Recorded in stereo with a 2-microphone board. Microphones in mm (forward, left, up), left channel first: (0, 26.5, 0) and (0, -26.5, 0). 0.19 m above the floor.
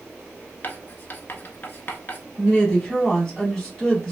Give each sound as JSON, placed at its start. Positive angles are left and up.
{"t": 0.6, "sound": "writing", "side_deg": 40, "distance_m": 0.6}
{"t": 2.4, "sound": "a woman speaking", "side_deg": 5, "distance_m": 1.7}